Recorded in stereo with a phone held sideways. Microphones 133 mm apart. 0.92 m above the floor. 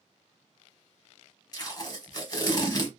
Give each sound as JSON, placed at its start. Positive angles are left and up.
{"t": 1.5, "sound": "tape being pulled", "side_deg": 30, "distance_m": 1.0}